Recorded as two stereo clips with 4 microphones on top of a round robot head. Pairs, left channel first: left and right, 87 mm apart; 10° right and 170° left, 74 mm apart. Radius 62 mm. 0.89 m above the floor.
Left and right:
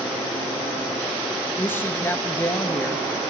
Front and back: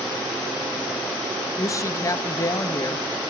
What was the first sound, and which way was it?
A woman speaking, 25° left.